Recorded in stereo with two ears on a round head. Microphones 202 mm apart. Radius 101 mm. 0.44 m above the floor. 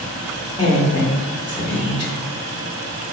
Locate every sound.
0.6 s a woman speaking: 20° left (ahead or behind), 1.0 m